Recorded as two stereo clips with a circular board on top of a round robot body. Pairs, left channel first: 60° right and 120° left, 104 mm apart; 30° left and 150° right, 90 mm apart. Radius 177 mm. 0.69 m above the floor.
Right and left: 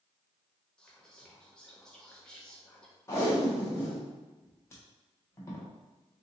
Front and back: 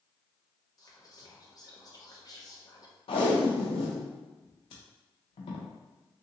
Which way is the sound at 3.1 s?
5° left.